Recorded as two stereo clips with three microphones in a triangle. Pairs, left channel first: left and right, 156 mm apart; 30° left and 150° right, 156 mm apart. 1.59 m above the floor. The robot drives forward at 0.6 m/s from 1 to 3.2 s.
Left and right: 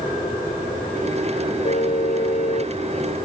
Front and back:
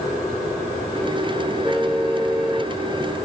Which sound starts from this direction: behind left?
A car horn, at 1.6 s.